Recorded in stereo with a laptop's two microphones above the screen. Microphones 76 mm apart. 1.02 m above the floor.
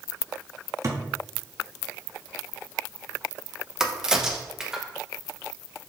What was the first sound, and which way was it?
A thud, 45° right (ahead or behind).